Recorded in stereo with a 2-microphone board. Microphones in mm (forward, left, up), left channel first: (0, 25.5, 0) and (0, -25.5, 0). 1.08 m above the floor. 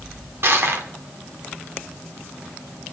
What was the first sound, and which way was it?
Crushing, 55° right (ahead or behind).